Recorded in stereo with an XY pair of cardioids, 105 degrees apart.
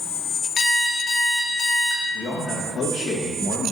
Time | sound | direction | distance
0.6 | an alarm clock | 40° left | 2 m
2.1 | a man speaking | 55° left | 1.9 m